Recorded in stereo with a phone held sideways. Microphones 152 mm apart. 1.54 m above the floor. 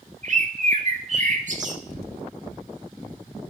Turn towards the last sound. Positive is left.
turn(degrees=30)  # may be behind; listen again after turning